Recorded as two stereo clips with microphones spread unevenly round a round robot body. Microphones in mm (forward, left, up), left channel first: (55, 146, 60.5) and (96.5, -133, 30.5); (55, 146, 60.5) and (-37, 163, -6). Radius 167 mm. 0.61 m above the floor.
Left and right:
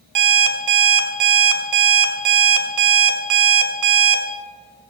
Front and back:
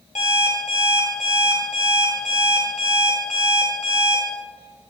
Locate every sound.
0.1 s an alarm clock: 70° right, 1.5 m